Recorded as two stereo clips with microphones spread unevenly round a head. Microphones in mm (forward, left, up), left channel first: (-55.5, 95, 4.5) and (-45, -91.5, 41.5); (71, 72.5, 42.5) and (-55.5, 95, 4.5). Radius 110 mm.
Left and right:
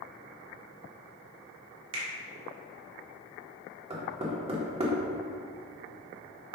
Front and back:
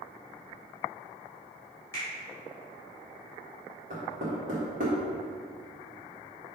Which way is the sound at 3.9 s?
145° right.